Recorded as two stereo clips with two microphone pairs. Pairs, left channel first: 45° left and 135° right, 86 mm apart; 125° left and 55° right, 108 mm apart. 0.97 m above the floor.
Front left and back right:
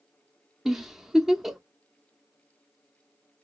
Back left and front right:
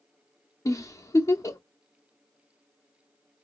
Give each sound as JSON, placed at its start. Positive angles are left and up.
{"t": 0.7, "sound": "a giggle", "azimuth_deg": 145, "distance_m": 0.5}